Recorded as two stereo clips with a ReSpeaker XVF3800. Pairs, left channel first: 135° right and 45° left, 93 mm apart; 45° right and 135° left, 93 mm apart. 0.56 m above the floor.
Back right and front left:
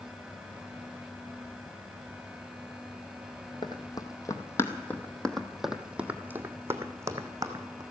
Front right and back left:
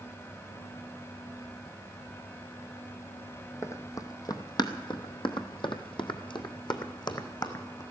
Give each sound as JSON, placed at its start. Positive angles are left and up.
{"t": 3.6, "sound": "running footsteps", "azimuth_deg": -100, "distance_m": 1.3}